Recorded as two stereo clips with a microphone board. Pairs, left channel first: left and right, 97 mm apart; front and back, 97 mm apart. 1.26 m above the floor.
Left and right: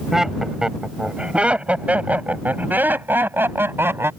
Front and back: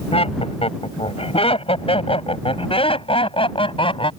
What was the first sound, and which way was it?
Laughter, 5° right.